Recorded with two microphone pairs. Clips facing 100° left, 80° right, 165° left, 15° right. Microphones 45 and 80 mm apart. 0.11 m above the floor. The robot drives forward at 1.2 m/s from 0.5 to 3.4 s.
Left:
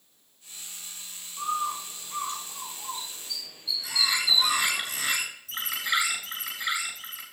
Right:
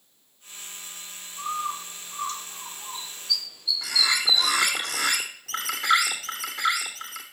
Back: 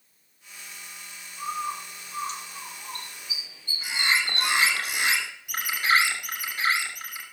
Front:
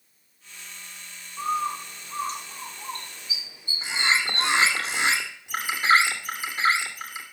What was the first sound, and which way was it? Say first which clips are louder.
A bird: left 1 dB, front 4 dB; 25° left.